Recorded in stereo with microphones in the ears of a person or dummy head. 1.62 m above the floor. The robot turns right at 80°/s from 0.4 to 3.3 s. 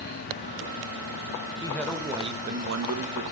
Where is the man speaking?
155° left, 2.5 m; by 3.2 s 75° right, 2.5 m.